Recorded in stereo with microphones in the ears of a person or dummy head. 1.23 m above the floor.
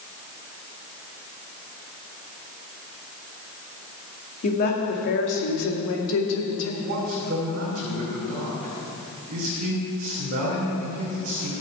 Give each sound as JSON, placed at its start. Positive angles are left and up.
{"t": 4.4, "sound": "a woman speaking", "side_deg": 45, "distance_m": 2.0}
{"t": 6.8, "sound": "a man speaking", "side_deg": -40, "distance_m": 4.0}